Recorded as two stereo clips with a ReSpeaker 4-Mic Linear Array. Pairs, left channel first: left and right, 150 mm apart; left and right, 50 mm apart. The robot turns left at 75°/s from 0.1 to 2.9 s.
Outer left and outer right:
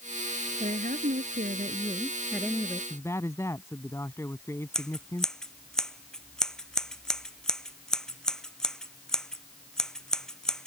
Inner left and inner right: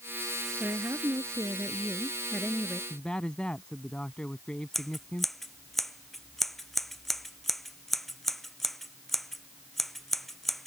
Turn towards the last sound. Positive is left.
turn(degrees=5)  # may be behind; listen again after turning